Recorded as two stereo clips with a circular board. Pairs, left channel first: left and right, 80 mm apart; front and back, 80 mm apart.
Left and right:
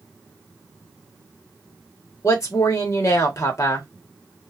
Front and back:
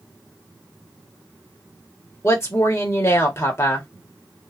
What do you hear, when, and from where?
2.2 s a woman speaking: 45° left, 1.1 m